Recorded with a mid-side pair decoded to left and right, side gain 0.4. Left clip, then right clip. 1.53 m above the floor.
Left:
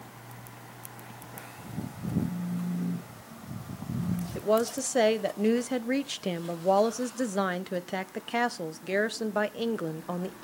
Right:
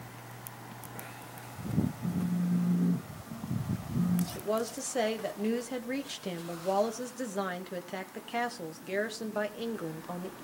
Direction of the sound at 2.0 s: 40° right.